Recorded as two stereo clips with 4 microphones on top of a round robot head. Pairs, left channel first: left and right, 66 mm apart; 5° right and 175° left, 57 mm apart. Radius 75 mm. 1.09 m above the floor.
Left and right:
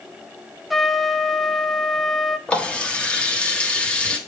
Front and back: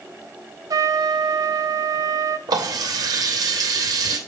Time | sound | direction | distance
0.7 | a trumpet | straight behind | 0.6 m
2.5 | a running tap | 165° left | 1.2 m